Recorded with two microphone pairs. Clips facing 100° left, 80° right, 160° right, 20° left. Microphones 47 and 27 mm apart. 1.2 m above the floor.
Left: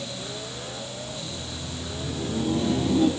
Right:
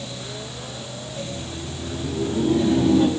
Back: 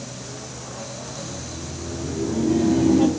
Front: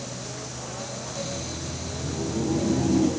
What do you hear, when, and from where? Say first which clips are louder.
1.1 s laughter: right 4 dB, front 1 dB; 105° right, 3.5 m; by 3.1 s 130° right, 2 m